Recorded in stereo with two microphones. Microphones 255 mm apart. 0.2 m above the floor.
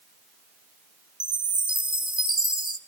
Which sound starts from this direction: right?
A chime, at 1.2 s.